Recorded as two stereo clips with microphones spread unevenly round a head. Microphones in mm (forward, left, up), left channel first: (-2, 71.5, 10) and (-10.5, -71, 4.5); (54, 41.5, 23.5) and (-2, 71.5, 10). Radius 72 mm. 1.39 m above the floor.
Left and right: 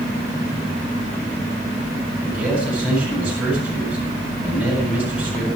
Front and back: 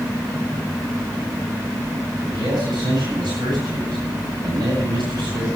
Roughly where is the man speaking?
Behind.